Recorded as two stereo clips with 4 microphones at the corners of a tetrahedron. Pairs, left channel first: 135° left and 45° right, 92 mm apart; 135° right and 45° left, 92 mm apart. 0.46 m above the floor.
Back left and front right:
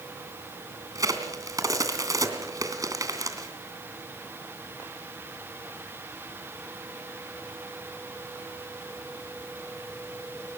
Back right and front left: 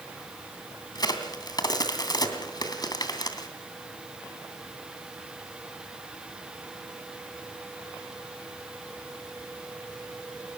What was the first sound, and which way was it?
A crack, 95° right.